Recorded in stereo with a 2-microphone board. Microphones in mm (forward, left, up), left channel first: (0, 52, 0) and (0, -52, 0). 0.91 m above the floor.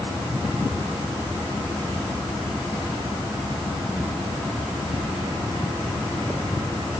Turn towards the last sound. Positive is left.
No sound to turn to.